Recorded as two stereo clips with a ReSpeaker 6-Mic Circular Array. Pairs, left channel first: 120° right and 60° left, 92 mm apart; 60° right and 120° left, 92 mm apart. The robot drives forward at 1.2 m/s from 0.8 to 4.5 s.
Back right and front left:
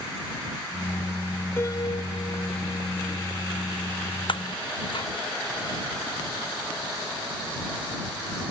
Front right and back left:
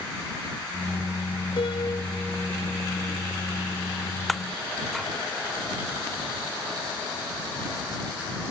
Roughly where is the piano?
Ahead right.